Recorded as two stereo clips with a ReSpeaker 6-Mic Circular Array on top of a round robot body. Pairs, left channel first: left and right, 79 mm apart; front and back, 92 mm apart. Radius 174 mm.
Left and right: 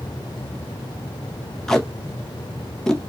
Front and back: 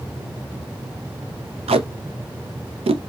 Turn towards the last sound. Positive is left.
turn(degrees=175)